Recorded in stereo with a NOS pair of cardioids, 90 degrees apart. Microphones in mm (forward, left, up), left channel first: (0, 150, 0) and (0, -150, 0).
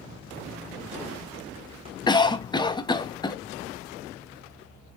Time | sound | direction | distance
2.1 | a cough | 15° left | 0.8 m